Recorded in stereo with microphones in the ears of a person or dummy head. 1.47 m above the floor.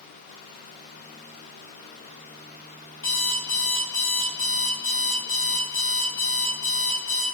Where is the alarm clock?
15° left (ahead or behind), 1.3 m.